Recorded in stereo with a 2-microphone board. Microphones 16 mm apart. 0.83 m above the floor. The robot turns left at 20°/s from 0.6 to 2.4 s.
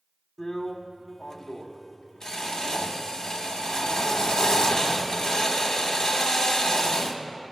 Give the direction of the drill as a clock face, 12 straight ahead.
7 o'clock.